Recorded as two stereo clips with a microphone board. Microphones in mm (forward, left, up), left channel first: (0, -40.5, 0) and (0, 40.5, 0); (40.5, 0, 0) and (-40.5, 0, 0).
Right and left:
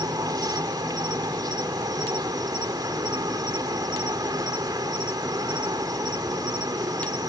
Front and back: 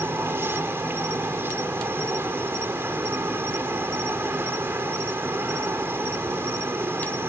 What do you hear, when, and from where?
0.0 s an insect: 120° left